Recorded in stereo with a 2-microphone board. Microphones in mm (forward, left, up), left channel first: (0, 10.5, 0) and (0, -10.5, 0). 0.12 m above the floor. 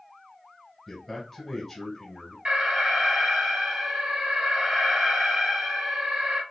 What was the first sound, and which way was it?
A man speaking, 10° left (ahead or behind).